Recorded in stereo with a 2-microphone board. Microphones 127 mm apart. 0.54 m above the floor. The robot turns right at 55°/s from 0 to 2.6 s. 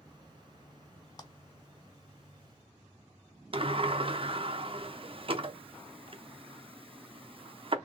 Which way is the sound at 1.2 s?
30° left (ahead or behind).